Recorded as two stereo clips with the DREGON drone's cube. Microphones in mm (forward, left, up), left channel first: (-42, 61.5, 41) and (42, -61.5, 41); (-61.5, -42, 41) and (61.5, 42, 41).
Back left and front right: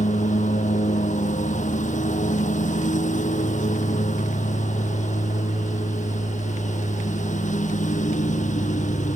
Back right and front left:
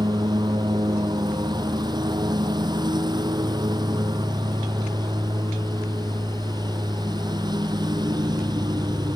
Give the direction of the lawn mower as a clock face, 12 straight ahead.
9 o'clock.